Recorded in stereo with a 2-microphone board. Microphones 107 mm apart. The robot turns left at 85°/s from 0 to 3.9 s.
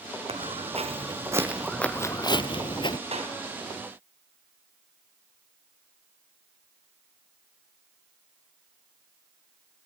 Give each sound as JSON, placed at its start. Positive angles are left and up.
{"t": 0.3, "sound": "footsteps", "side_deg": -65, "distance_m": 3.5}
{"t": 3.1, "sound": "a clap", "side_deg": -70, "distance_m": 5.0}